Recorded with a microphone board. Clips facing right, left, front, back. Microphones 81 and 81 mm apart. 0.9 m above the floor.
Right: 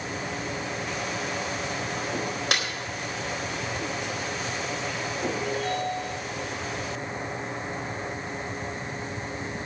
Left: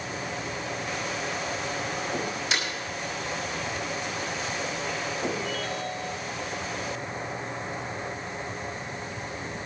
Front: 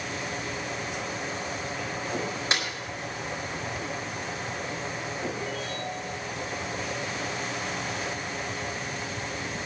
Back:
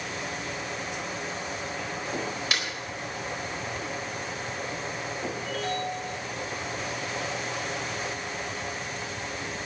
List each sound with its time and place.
2.5 s a snare drum: 60° right, 4 m
5.4 s a ringtone: 150° right, 5 m